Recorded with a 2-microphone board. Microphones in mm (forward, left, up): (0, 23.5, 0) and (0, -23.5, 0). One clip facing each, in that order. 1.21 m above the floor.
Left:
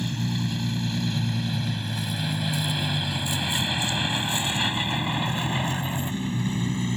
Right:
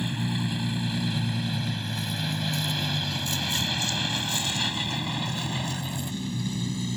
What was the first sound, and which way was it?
A vehicle, 15° right (ahead or behind).